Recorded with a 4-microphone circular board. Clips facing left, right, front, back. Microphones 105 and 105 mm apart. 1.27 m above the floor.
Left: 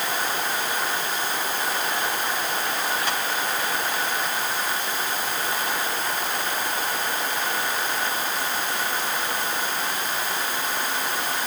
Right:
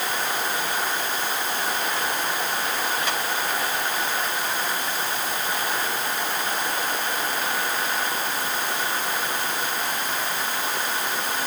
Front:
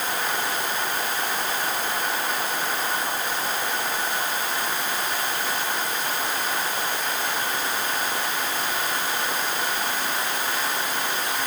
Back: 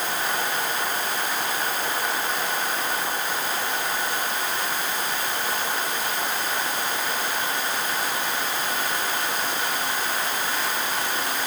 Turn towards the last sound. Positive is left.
No sound to turn to.